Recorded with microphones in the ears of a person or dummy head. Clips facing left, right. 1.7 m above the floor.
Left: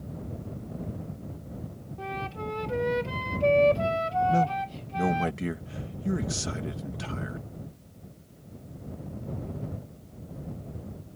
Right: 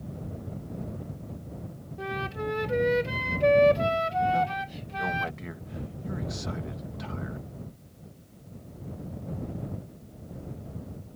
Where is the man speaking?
45° left (ahead or behind).